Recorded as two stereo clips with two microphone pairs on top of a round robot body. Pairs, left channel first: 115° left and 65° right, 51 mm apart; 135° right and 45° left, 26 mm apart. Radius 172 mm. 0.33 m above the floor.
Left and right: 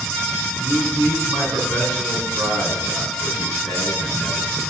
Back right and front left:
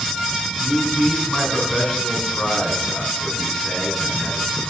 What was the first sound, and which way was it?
A man speaking, 55° right.